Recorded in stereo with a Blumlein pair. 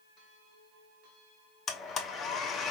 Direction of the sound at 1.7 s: 25° left.